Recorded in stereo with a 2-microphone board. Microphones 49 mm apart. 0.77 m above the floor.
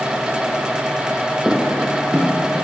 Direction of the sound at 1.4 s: 10° right (ahead or behind).